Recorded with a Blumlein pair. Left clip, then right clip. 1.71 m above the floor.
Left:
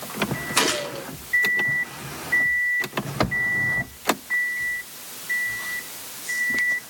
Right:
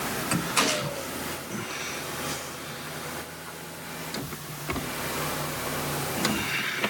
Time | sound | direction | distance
0.6 | a gunshot | 20° left | 3.5 m